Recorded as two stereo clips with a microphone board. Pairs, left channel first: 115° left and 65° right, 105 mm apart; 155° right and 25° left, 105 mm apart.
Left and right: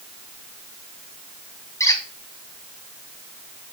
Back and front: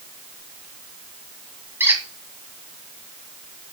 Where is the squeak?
75° left, 1.5 m.